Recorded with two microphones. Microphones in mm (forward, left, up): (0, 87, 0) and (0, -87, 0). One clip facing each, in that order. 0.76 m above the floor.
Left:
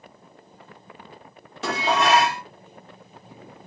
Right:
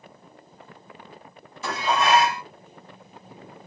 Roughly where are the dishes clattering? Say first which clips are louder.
Left 1 dB; left.